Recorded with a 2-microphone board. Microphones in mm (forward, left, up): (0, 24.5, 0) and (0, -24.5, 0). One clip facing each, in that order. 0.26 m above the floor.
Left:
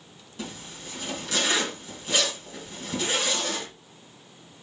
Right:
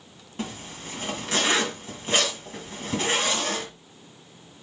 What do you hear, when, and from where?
0.4 s a zipper: 40° right (ahead or behind), 1.9 m